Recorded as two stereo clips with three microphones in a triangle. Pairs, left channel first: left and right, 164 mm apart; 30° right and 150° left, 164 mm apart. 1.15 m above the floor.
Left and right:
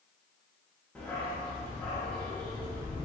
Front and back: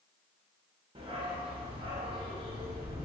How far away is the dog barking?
About 0.7 m.